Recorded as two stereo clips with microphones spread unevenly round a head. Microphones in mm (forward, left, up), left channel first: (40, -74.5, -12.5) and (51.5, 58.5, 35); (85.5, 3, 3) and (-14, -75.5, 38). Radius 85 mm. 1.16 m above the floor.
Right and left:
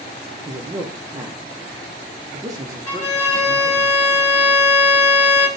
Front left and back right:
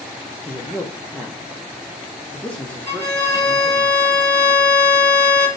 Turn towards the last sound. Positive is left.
turn(degrees=-25)